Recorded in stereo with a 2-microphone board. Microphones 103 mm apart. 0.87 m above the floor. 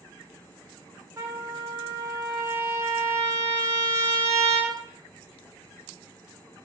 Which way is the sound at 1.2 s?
30° right (ahead or behind).